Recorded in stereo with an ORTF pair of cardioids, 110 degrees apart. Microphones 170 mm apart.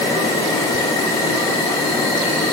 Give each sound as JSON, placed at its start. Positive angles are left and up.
{"t": 0.0, "sound": "an insect", "azimuth_deg": 20, "distance_m": 2.5}